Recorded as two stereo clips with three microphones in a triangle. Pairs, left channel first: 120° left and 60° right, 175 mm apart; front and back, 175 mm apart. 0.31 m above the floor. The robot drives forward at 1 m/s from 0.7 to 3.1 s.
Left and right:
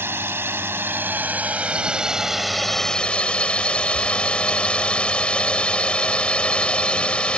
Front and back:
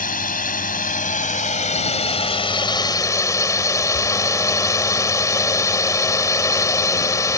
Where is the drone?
15° left; by 7.4 s 45° left.